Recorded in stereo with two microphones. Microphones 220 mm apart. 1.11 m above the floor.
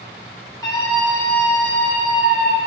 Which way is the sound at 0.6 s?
15° left (ahead or behind).